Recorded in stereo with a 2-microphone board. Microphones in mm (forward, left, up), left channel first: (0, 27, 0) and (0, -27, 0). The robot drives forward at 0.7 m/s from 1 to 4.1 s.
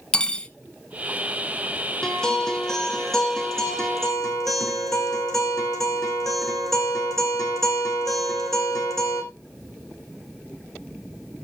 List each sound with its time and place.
0.1 s cutlery clinking: 20° left (ahead or behind), 1.2 m
2.0 s a guitar: 15° left (ahead or behind), 2 m; by 9.2 s 10° left (ahead or behind), 3.5 m